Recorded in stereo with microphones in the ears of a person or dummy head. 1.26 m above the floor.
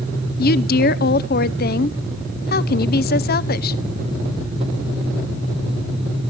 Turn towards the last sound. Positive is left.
turn(degrees=40)  # may be behind; listen again after turning